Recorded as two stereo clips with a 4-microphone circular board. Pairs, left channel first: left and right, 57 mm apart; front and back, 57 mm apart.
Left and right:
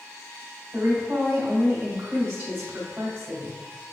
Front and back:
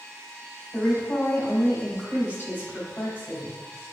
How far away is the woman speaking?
About 1.8 m.